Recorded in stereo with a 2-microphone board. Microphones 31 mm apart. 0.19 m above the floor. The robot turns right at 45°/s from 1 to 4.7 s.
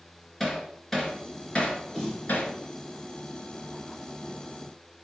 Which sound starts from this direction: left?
A snare drum, at 1.9 s.